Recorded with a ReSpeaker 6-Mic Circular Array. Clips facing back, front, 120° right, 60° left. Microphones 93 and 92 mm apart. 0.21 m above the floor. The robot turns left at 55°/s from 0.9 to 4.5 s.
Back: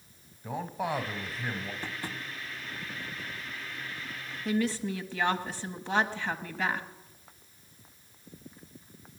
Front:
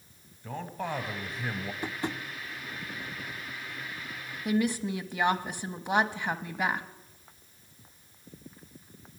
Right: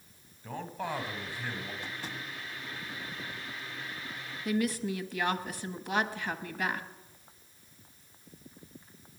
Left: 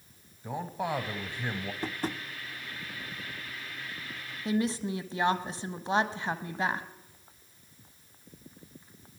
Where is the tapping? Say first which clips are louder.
Front 5 dB, left 7 dB; 65° left, 0.6 m; by 2.2 s 45° left, 0.6 m.